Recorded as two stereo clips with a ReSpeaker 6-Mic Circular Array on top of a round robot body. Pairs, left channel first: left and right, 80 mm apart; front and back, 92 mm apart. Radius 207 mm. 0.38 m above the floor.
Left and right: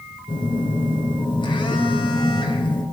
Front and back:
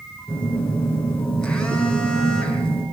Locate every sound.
0.3 s a phone buzzing: 85° left, 5.5 m